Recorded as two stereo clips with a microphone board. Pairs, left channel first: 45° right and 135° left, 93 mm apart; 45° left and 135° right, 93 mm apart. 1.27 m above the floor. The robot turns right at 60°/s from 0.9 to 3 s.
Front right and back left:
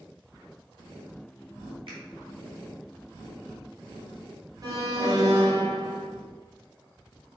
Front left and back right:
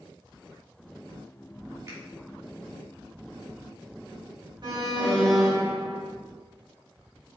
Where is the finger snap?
165° left, 2 m; by 2.0 s 170° left, 2 m.